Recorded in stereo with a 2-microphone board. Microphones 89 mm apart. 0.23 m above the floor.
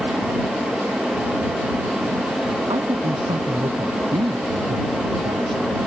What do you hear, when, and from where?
2.7 s a woman speaking: 80° right